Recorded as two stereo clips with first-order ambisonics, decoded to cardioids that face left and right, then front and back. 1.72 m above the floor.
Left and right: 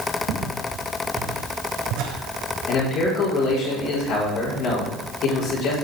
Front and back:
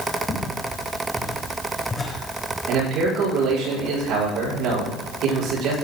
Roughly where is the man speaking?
Behind left.